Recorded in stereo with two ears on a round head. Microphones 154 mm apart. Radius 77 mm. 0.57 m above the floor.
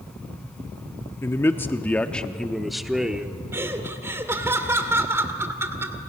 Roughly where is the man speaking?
Centre.